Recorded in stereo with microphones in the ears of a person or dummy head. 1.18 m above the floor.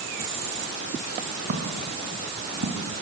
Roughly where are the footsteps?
Right.